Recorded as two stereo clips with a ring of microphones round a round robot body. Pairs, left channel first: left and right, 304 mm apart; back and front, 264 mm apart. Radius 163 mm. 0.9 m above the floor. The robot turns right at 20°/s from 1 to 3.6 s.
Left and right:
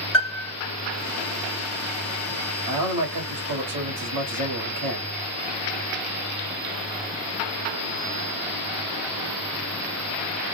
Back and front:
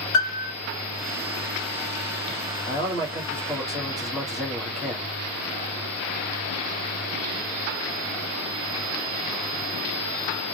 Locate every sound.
0.1 s a piano: straight behind, 2.5 m
2.7 s a man speaking: 110° right, 2 m; by 5.1 s 90° right, 2 m